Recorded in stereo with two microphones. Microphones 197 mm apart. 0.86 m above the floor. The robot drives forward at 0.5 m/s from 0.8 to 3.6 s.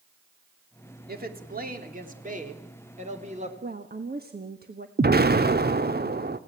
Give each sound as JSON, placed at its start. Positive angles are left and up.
{"t": 1.1, "sound": "a woman speaking", "side_deg": -50, "distance_m": 2.5}
{"t": 3.6, "sound": "a woman speaking", "side_deg": -50, "distance_m": 1.4}
{"t": 5.0, "sound": "an explosion", "side_deg": -55, "distance_m": 1.0}